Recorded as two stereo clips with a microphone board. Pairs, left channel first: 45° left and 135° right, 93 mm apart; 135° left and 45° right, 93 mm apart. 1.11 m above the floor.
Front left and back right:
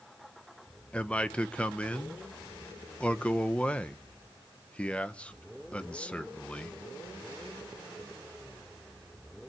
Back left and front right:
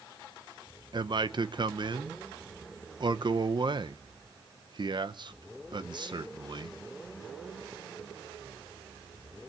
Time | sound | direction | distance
0.9 | a man speaking | 30° right | 0.8 m